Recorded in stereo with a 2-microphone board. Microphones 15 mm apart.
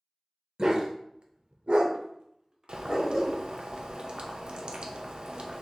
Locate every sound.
0.6 s a dog barking: 50° right (ahead or behind), 0.7 m; by 3.4 s 35° right (ahead or behind), 1.2 m
2.7 s boiling: 65° right (ahead or behind), 0.6 m